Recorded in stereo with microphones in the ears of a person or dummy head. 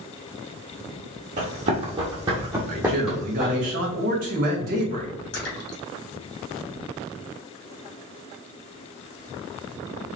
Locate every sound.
1.4 s running footsteps: 40° right (ahead or behind), 1.7 m; by 3.7 s 10° left (ahead or behind), 1.9 m
2.7 s a man speaking: 40° right (ahead or behind), 1.5 m
5.3 s a splash: 80° left, 2.5 m